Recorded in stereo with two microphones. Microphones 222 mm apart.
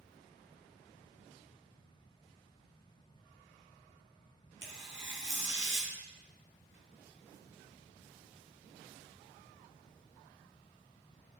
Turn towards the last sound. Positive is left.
turn(degrees=60)  # may be behind; listen again after turning